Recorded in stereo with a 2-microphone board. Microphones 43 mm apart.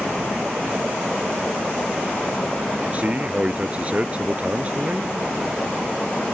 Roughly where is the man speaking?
Right.